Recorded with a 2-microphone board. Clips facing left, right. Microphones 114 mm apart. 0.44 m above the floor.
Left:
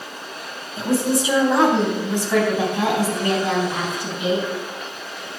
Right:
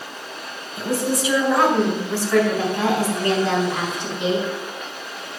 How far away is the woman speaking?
About 3.5 m.